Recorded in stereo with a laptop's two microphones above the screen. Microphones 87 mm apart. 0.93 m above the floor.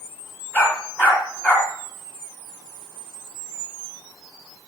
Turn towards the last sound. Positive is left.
turn(degrees=20)  # may be behind; listen again after turning